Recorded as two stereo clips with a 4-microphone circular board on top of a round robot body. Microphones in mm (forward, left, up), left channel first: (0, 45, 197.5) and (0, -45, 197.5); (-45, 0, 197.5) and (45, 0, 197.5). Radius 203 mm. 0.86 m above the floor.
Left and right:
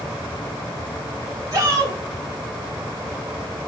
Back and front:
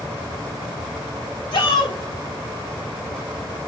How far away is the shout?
About 7 m.